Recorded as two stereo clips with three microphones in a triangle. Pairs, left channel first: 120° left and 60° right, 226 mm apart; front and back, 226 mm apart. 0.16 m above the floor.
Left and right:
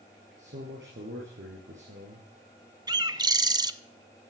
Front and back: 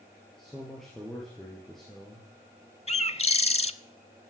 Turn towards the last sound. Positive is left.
turn(degrees=-10)